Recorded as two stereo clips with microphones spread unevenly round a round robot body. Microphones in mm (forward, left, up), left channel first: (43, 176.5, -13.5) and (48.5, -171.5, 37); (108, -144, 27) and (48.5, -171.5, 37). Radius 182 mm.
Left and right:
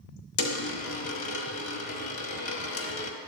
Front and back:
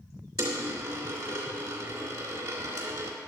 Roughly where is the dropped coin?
Behind left.